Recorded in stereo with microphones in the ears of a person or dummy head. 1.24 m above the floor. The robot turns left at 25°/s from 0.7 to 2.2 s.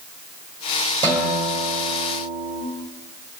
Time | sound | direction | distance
1.0 | a guitar | 20° right (ahead or behind) | 3.5 m